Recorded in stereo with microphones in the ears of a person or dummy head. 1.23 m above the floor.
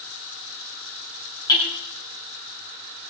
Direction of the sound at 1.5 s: 25° left (ahead or behind).